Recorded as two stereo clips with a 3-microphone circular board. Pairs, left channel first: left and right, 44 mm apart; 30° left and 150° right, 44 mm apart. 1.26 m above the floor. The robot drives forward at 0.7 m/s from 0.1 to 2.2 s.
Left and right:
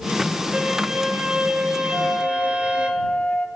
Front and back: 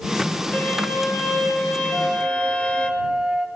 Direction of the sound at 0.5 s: 20° right.